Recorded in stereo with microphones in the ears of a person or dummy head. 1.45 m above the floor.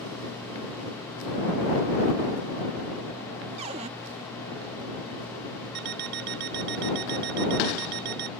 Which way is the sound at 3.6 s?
40° right (ahead or behind).